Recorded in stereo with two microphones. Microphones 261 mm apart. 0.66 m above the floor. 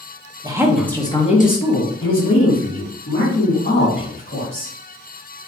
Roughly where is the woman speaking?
Centre.